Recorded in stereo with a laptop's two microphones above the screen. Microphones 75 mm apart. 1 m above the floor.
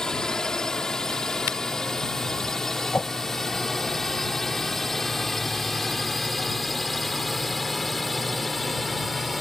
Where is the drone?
10° left (ahead or behind); by 9.4 s centre (ahead or behind).